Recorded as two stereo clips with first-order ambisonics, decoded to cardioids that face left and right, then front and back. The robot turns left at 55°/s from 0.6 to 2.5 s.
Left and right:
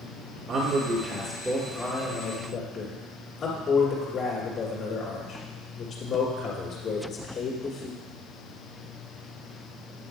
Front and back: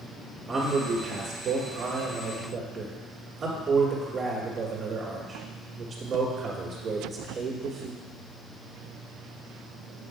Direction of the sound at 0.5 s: 120° right.